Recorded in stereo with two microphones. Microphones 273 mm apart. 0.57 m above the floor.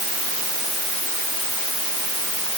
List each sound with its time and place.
Only background noise.